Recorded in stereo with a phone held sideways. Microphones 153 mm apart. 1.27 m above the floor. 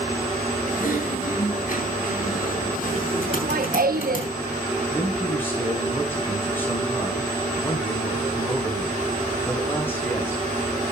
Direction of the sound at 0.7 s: 65° left (ahead or behind).